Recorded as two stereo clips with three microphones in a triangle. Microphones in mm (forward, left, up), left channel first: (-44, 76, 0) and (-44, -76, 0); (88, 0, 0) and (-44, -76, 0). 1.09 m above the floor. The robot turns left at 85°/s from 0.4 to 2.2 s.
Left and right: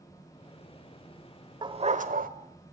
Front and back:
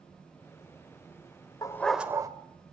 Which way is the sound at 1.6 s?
35° right.